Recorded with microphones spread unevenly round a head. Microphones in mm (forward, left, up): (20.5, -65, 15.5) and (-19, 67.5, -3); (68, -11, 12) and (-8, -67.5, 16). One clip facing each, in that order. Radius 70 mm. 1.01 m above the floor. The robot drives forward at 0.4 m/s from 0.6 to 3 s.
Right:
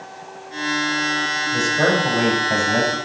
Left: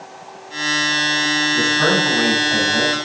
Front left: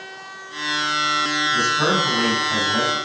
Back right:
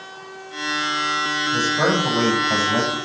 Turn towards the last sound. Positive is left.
turn(degrees=-120)